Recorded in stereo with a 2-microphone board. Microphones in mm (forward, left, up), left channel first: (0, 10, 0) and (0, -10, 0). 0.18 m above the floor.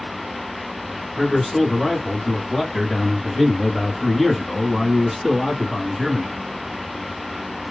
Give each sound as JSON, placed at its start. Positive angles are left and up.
{"t": 1.2, "sound": "a man speaking", "side_deg": 30, "distance_m": 1.9}